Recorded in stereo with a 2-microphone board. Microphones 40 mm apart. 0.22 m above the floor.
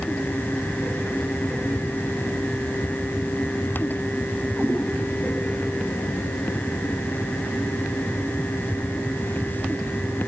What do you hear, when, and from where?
4.6 s a cat meowing: 45° left (ahead or behind), 8.5 m